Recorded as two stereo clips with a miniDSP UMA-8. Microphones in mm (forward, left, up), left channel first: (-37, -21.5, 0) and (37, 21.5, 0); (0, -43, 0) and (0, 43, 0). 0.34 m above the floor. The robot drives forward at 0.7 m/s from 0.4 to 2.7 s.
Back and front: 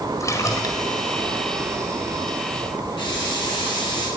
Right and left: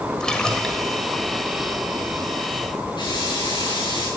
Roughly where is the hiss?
Behind right.